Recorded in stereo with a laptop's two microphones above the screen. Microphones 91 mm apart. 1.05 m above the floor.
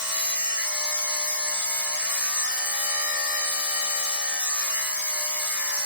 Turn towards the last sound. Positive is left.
turn(degrees=-15)  # may be behind; listen again after turning